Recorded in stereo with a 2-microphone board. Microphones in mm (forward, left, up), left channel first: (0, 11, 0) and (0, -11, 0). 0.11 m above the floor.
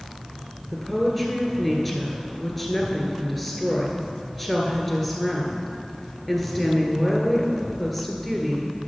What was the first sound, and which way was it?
A woman speaking, 5° left (ahead or behind).